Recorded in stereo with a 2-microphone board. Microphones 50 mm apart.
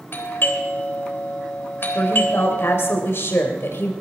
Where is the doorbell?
50° left (ahead or behind), 3.5 m.